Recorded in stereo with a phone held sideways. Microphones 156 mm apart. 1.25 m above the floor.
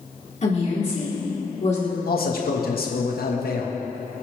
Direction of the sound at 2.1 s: 75° left (ahead or behind).